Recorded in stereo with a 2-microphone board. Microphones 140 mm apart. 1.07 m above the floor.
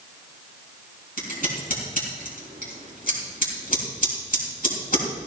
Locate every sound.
1.2 s scissors: 85° left, 4.5 m